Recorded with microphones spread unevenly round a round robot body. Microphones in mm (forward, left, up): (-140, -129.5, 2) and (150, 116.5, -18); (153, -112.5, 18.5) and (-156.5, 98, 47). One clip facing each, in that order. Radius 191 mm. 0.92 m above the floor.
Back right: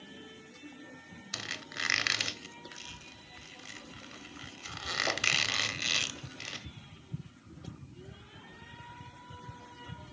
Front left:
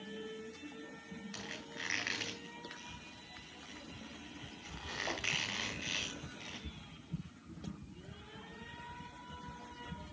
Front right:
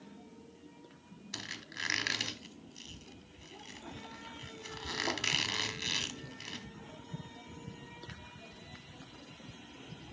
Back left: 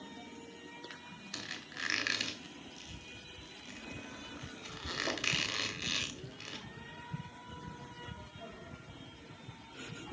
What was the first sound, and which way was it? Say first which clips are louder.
A squeak: even, back left 1 dB; 120° right.